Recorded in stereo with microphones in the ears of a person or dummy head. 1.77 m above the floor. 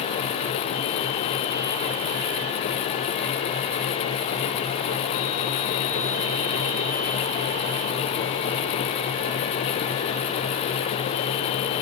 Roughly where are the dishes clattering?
I don't hear dishes clattering.